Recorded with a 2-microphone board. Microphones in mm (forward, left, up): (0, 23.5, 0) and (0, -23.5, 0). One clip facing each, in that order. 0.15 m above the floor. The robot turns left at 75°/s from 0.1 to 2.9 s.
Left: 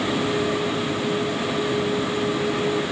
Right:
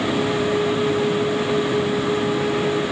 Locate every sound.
Only background noise.